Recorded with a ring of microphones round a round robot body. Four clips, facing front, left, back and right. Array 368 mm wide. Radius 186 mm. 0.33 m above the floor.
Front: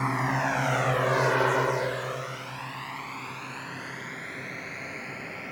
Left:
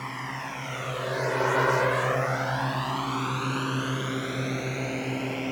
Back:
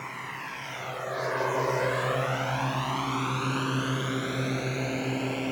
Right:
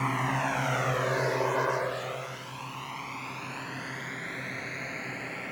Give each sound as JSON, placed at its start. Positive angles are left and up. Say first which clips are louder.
{"t": 0.0, "sound": "a drone", "louder": "right 6 dB, front 11 dB", "azimuth_deg": -30}